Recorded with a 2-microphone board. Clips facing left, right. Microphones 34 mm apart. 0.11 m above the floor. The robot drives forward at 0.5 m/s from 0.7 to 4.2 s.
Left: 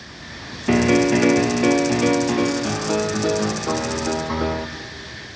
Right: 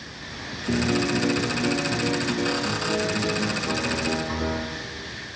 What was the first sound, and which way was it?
A piano, 60° left (ahead or behind).